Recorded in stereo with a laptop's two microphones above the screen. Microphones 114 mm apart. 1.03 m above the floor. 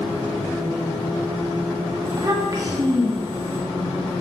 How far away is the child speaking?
About 1.5 m.